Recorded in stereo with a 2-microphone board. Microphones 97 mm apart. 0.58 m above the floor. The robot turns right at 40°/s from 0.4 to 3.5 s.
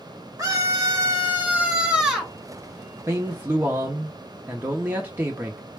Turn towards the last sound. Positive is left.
turn(degrees=-20)  # may be behind; listen again after turning